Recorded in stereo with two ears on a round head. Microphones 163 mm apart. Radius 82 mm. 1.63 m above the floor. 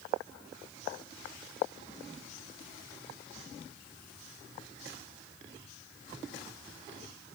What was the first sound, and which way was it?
Only background noise.